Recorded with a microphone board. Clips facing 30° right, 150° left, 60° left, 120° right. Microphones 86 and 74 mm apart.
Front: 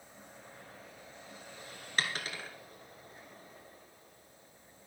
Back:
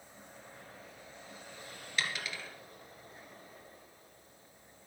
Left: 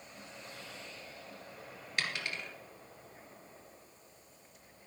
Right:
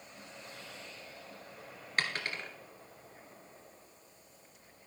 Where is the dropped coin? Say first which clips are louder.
Front 2 dB, right 3 dB; 70° right, 1.9 m.